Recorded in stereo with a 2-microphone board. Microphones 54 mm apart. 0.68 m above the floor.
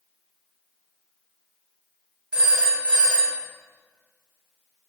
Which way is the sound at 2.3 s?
20° right (ahead or behind).